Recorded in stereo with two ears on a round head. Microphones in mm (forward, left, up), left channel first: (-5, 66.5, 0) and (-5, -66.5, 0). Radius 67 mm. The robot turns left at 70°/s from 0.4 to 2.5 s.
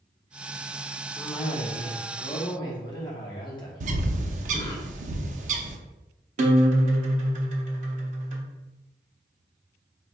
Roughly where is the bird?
Right.